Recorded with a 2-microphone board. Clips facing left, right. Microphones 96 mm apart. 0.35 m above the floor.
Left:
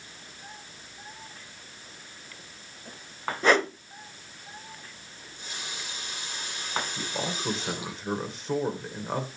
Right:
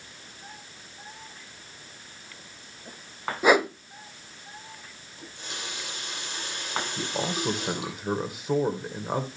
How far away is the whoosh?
About 0.5 m.